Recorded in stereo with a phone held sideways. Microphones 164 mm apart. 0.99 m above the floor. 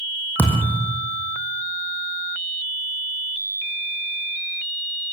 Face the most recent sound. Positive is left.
turn(degrees=10)  # may be behind; listen again after turning